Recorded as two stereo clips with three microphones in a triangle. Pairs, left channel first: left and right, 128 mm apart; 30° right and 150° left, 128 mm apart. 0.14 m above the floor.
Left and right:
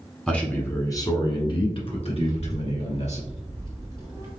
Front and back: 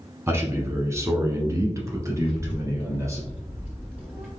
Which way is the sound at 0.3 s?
155° left.